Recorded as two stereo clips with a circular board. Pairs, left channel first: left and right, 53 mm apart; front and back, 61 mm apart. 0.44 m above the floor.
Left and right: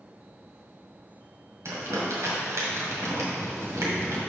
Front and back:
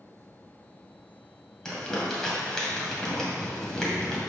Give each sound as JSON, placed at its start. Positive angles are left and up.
{"t": 1.6, "sound": "crumpling", "azimuth_deg": -80, "distance_m": 2.0}